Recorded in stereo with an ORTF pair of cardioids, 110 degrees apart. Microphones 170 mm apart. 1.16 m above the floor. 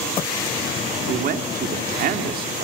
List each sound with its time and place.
1.1 s a man speaking: 60° right, 2.5 m